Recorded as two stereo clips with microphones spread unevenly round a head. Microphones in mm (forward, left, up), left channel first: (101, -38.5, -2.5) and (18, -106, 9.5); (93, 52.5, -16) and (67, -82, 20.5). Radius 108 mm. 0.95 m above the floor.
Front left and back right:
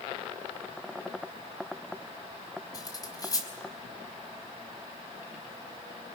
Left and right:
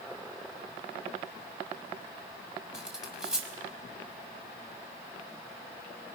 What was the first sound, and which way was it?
Cutlery clinking, 15° right.